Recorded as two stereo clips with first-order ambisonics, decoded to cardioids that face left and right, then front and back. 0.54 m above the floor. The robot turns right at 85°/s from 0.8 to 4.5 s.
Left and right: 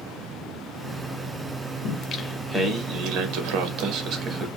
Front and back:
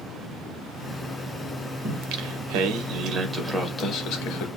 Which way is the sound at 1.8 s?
130° left.